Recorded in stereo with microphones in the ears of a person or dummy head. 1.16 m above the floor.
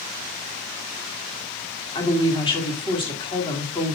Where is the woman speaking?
20° left (ahead or behind), 3.5 m.